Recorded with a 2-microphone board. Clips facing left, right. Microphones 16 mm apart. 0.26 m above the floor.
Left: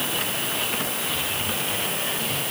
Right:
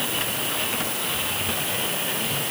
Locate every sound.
Only background noise.